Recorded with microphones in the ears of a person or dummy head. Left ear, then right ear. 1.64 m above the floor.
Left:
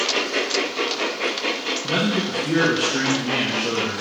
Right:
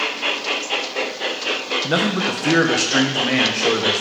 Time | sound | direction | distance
1.8 | a man speaking | 55° right (ahead or behind) | 1.1 m